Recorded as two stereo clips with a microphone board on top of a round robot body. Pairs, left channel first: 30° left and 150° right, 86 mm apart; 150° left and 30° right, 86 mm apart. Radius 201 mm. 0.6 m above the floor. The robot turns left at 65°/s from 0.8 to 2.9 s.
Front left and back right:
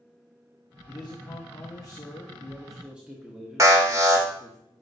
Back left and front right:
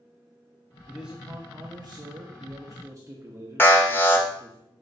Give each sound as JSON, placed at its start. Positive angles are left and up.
{"t": 0.9, "sound": "a man speaking", "azimuth_deg": 60, "distance_m": 1.2}
{"t": 3.6, "sound": "an alarm", "azimuth_deg": -165, "distance_m": 1.9}